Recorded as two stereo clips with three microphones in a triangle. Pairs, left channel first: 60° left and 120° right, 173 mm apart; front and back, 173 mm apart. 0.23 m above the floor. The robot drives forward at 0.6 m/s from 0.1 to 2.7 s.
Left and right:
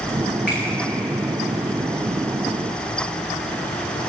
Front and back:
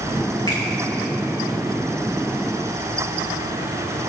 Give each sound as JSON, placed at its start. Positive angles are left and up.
{"t": 0.5, "sound": "a finger snap", "azimuth_deg": 65, "distance_m": 3.5}